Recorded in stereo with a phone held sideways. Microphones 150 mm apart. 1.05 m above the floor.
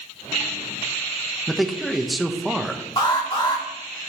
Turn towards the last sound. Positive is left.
turn(degrees=35)  # may be behind; listen again after turning